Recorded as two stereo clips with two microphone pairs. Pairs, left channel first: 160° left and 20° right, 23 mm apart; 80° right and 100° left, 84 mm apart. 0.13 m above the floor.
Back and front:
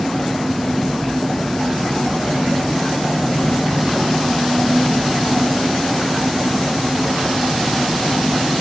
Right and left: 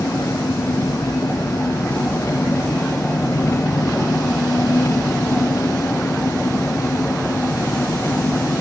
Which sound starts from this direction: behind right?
An engine running, at 0.0 s.